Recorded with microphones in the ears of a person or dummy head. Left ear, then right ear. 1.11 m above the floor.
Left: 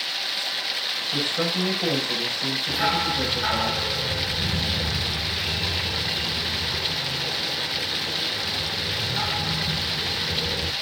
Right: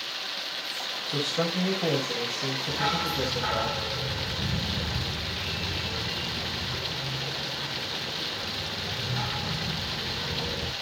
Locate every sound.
0.0 s running water: 20° left (ahead or behind), 0.8 m
1.1 s a man speaking: 10° right (ahead or behind), 6 m
2.7 s a dog barking: 15° left (ahead or behind), 1.3 m